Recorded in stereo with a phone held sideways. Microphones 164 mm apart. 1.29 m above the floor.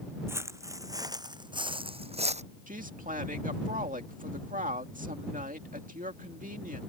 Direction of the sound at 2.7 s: 55° right (ahead or behind).